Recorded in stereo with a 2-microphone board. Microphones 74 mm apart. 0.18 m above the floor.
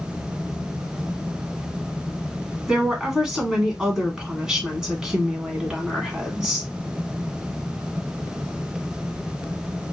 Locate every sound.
2.7 s a woman speaking: 10° right (ahead or behind), 1.2 m